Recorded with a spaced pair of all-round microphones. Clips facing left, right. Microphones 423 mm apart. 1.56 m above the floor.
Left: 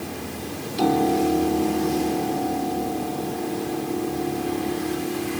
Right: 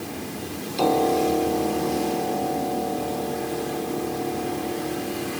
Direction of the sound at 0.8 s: 30° left (ahead or behind).